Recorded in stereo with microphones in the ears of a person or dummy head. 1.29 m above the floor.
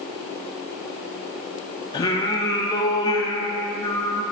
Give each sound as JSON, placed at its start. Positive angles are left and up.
{"t": 1.9, "sound": "singing", "side_deg": 20, "distance_m": 0.6}